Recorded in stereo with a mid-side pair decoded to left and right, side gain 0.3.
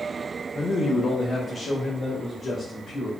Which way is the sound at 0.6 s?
45° left.